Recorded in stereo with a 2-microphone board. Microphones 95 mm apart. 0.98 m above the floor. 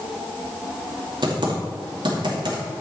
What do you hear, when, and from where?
1.2 s typing on a keyboard: 60° right (ahead or behind), 2.5 m